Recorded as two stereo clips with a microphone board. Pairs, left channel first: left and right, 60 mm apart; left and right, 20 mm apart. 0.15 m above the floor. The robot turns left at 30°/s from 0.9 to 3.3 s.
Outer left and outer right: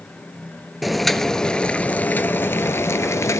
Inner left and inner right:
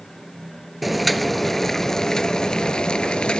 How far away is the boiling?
About 0.5 m.